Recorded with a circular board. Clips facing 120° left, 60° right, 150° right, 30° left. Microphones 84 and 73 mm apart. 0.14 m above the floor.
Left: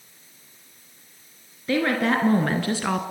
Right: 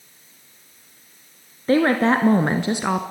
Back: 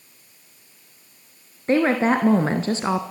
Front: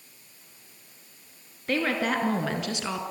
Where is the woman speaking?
95° right, 1.7 m; by 3.0 s 130° right, 1.3 m.